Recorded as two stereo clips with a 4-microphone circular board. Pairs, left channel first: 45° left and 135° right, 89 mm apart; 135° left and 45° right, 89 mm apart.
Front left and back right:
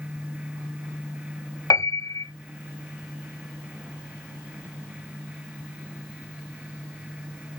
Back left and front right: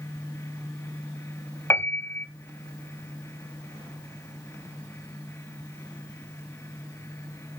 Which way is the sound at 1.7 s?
75° left.